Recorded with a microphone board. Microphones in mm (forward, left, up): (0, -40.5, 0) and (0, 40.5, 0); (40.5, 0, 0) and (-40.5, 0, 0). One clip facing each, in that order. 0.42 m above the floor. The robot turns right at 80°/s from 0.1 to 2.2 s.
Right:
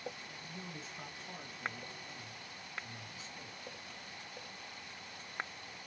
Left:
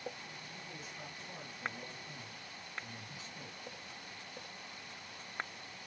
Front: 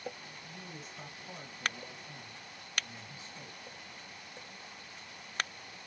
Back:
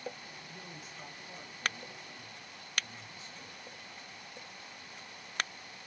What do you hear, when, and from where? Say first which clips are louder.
0.4 s a man speaking: right 1 dB, front 1 dB; 75° right, 2 m; by 3.6 s 65° left, 2 m